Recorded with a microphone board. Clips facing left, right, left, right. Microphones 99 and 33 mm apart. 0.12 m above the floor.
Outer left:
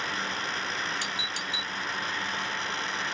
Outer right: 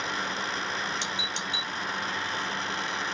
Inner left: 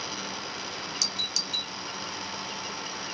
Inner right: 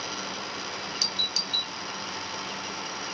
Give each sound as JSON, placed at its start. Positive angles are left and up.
{"t": 1.0, "sound": "a doorbell", "side_deg": -25}